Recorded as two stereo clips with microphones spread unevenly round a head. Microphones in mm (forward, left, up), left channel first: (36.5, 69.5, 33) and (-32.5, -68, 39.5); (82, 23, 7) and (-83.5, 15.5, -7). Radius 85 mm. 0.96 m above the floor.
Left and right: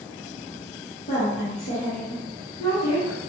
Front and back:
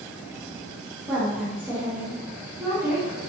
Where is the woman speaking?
105° left, 0.9 m.